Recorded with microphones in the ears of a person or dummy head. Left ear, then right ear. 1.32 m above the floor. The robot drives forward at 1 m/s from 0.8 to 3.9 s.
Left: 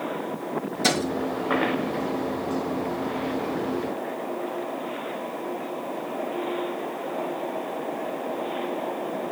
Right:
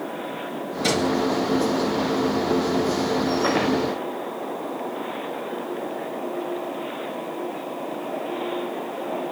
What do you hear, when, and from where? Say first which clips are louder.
0.8 s a thud: right 1 dB; 15° left (ahead or behind), 4 m